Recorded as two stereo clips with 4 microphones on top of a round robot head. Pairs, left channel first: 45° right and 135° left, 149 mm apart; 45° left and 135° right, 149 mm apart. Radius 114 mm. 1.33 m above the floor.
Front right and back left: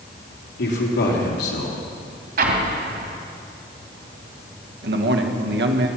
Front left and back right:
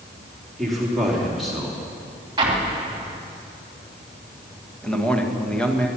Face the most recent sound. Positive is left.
turn(degrees=130)